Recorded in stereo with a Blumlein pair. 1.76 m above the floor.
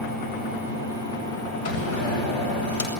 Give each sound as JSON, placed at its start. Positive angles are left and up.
{"t": 1.6, "sound": "a door slam", "azimuth_deg": 55, "distance_m": 8.0}